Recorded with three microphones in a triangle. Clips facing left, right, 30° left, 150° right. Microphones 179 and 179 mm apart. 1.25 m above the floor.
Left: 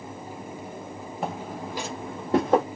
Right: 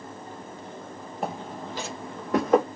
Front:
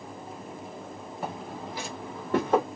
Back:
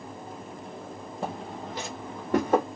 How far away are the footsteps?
About 1.4 m.